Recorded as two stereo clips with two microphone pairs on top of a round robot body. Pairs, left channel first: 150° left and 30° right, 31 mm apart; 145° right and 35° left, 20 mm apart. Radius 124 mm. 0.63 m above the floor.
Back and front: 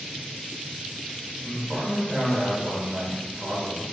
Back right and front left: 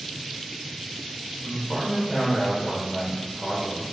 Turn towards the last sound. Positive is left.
turn(degrees=-90)